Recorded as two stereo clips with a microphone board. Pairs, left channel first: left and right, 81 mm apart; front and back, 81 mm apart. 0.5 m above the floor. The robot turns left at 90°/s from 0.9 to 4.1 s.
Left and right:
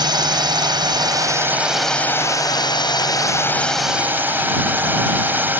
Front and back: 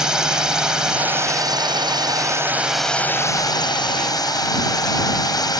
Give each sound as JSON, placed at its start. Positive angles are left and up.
{"t": 0.0, "sound": "a drone", "azimuth_deg": -100}